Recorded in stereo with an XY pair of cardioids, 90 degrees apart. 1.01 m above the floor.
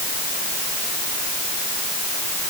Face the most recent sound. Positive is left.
No sound to turn to.